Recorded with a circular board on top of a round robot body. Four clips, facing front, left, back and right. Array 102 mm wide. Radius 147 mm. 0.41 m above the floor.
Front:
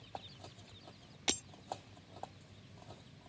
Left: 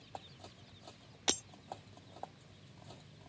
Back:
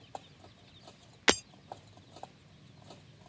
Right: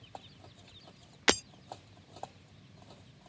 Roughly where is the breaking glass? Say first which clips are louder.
Right 10 dB, back 13 dB; behind right.